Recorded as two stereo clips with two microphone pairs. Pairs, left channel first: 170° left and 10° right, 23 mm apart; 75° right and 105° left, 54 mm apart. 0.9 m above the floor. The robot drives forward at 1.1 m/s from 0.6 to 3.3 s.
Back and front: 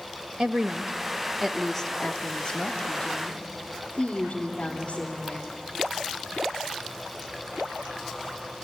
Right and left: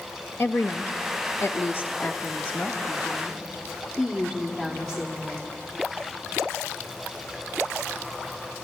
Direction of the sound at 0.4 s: 40° right.